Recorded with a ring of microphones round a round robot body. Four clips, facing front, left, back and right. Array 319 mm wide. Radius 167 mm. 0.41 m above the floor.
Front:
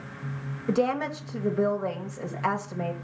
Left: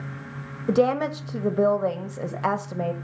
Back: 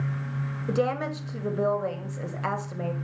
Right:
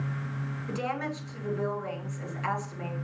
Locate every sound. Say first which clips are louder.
0.7 s a woman speaking: left 12 dB, front 1 dB; 90° left, 1.9 m